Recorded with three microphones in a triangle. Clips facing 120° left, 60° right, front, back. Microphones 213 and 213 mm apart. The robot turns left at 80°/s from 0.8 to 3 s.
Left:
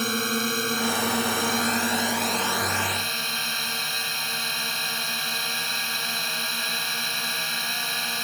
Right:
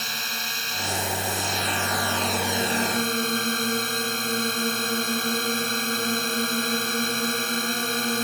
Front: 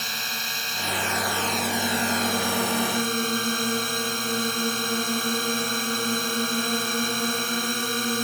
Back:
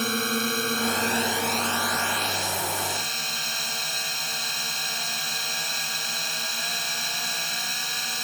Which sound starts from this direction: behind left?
A drone, at 0.0 s.